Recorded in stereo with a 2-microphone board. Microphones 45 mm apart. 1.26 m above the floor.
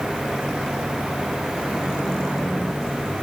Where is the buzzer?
No buzzer in this recording.